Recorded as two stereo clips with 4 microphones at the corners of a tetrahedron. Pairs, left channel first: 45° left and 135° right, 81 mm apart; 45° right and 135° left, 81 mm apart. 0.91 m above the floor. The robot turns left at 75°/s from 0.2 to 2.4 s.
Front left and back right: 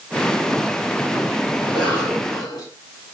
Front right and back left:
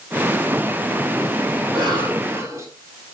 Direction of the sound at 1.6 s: 145° left.